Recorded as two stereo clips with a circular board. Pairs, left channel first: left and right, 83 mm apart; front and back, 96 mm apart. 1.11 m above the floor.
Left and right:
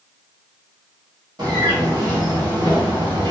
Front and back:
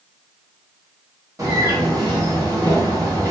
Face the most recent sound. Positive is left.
turn(degrees=-125)